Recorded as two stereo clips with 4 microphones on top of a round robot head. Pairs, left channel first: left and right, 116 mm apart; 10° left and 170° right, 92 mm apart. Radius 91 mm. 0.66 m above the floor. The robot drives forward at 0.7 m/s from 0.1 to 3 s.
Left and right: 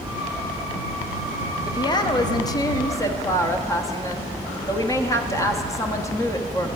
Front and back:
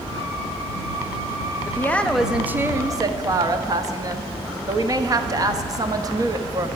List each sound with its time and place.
1.6 s a woman speaking: 55° left, 0.8 m; by 6.7 s 150° left, 1.0 m